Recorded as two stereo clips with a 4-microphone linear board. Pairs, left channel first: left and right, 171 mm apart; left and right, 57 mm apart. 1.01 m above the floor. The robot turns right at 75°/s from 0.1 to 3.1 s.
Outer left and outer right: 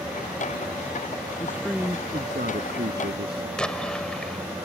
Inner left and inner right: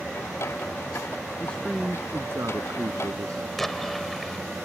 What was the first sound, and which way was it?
A man speaking, 160° left.